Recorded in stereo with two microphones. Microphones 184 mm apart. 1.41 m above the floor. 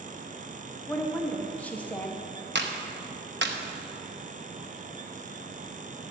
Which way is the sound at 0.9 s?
10° left (ahead or behind).